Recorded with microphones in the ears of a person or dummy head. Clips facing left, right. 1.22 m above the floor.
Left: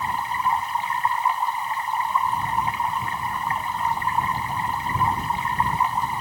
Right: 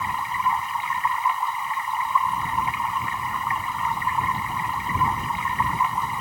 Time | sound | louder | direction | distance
0.0 | running water | left 1 dB | 35° left (ahead or behind) | ?